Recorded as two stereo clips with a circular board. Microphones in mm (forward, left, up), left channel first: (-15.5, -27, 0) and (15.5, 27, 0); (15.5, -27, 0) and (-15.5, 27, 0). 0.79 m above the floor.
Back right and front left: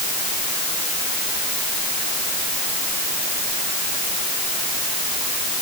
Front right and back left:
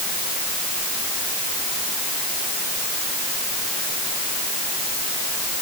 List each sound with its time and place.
Only background noise.